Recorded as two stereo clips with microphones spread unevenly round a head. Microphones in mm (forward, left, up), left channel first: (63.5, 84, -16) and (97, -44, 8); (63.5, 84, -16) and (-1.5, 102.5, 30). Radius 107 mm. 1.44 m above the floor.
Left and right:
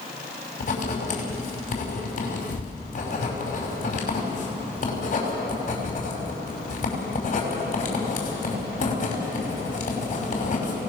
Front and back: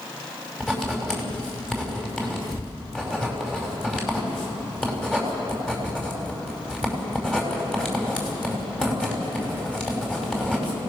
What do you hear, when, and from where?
0.6 s writing: 70° left, 5.5 m